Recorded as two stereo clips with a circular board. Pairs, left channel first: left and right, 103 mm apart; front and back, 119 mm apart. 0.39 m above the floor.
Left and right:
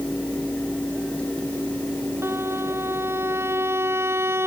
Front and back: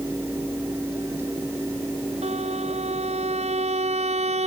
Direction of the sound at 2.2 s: 155° right.